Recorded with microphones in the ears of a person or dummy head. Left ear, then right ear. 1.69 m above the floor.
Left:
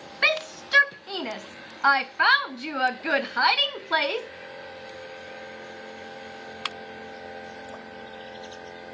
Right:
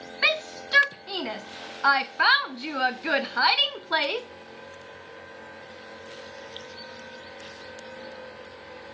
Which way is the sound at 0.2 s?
5° left (ahead or behind).